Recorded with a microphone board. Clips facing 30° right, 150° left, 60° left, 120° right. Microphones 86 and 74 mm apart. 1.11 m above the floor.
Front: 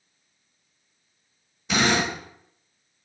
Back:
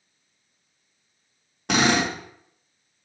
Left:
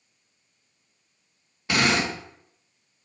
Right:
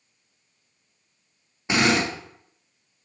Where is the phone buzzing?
No phone buzzing in this recording.